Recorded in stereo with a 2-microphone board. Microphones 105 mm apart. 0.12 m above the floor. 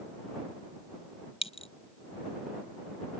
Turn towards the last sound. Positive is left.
turn(degrees=70)  # may be behind; listen again after turning